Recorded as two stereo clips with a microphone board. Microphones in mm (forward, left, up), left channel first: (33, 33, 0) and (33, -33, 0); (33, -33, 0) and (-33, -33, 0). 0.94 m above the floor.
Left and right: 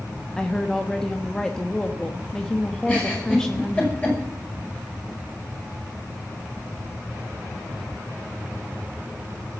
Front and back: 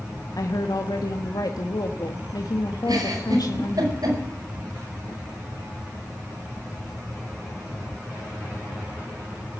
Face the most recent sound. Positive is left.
turn(degrees=155)